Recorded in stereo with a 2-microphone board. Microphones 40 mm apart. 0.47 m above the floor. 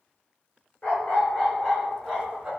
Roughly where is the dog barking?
Left.